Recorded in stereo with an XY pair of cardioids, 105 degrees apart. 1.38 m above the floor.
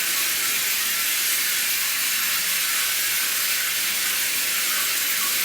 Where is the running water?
5° right, 0.9 m.